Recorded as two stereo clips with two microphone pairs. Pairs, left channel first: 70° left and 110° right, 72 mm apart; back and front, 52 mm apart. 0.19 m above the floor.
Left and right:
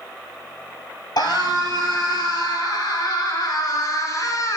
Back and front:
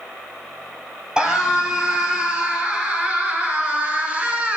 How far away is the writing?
I don't hear writing.